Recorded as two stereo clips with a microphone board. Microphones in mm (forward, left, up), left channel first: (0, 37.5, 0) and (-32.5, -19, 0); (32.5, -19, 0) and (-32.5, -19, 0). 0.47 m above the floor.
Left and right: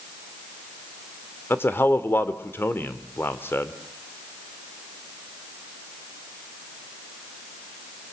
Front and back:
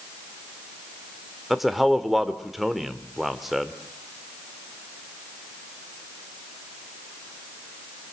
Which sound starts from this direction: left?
A man speaking, at 1.5 s.